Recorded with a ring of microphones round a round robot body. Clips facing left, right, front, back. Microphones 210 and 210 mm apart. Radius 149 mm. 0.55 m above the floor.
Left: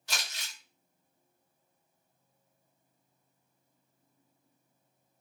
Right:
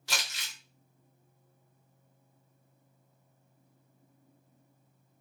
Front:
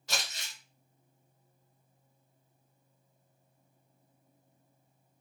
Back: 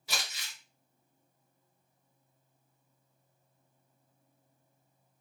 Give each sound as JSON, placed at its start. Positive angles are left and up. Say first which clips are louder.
{"t": 0.1, "sound": "crumpling", "louder": "right 2 dB, front 2 dB", "azimuth_deg": -95, "distance_m": 0.9}